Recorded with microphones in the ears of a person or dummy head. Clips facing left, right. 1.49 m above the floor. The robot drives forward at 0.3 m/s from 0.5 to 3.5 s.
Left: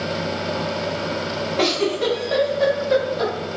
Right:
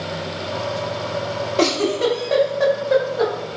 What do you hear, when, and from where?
1.6 s a giggle: 55° right (ahead or behind), 0.7 m; by 3.3 s 30° right (ahead or behind), 1.1 m